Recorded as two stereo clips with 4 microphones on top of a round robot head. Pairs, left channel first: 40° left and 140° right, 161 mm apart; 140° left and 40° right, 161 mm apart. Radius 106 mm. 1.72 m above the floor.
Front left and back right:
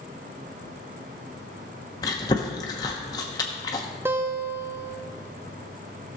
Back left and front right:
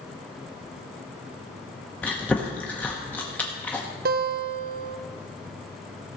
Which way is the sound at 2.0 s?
70° left.